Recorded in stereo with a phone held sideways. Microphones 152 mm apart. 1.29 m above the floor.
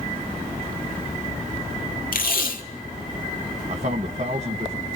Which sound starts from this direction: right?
A man speaking, at 3.7 s.